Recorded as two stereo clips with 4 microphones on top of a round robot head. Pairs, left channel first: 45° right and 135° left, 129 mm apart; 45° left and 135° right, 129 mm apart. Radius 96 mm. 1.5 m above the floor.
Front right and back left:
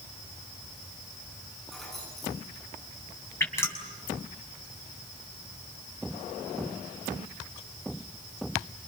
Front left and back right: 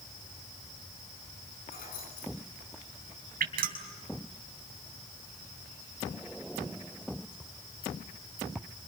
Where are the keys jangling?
40° left, 9.5 m.